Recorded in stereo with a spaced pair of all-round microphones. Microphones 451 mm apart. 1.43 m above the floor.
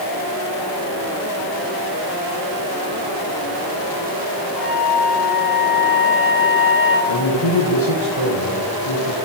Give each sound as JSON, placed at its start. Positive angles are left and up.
{"t": 4.6, "sound": "a flute", "side_deg": 0, "distance_m": 2.5}
{"t": 7.1, "sound": "a man speaking", "side_deg": 85, "distance_m": 1.3}